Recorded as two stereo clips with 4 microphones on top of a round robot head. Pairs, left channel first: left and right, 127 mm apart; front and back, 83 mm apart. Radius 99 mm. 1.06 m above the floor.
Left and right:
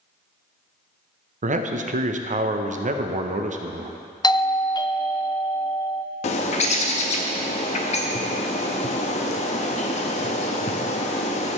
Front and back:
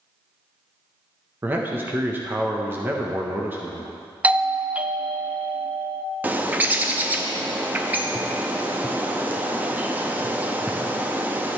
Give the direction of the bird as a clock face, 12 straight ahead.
8 o'clock.